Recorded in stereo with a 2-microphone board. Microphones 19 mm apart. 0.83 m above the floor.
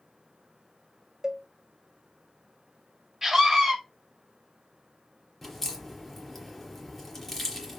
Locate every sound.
1.2 s a cowbell: 30° right (ahead or behind), 1.4 m
3.2 s a scream: 20° right (ahead or behind), 4 m
5.4 s a crack: 10° left (ahead or behind), 3.5 m